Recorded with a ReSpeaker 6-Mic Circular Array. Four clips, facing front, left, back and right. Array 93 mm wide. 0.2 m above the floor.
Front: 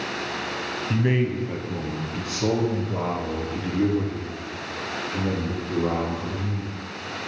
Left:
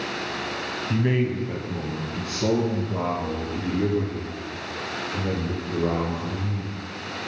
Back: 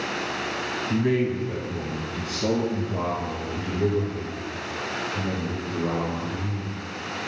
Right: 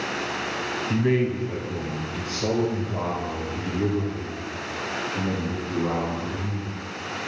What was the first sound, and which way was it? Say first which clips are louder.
A man speaking: right 1 dB, back 1 dB; 10° left.